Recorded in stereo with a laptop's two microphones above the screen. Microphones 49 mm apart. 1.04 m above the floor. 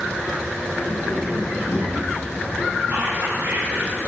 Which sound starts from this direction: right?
Whispering, at 2.9 s.